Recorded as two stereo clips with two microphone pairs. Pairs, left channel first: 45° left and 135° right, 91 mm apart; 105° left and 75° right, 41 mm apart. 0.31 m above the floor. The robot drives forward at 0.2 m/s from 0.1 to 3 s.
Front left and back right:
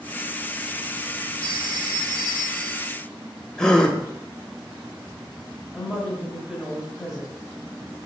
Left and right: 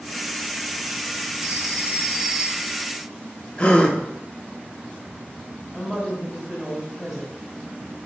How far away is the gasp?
About 0.6 m.